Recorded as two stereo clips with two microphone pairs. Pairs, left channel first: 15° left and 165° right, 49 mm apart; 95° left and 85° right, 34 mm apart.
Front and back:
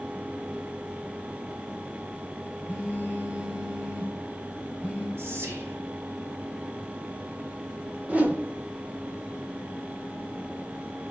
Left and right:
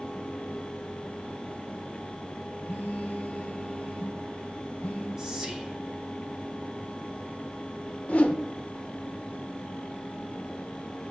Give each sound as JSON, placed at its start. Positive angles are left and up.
{"t": 2.7, "sound": "a phone buzzing", "azimuth_deg": 135, "distance_m": 1.6}
{"t": 5.2, "sound": "whispering", "azimuth_deg": -155, "distance_m": 1.3}
{"t": 8.1, "sound": "a whoosh", "azimuth_deg": 145, "distance_m": 0.6}